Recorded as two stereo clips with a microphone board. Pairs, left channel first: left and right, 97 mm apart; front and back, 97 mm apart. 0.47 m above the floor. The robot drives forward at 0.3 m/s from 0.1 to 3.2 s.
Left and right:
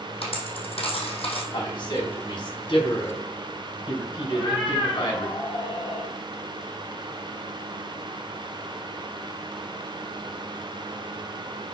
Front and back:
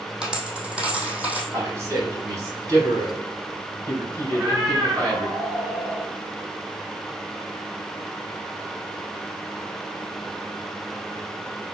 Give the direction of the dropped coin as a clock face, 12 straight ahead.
9 o'clock.